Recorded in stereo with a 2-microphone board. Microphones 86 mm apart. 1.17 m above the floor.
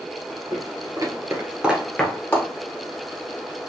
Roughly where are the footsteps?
Right.